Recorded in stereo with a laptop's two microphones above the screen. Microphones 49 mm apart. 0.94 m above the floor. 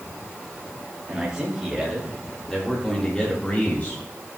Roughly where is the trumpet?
No trumpet in this recording.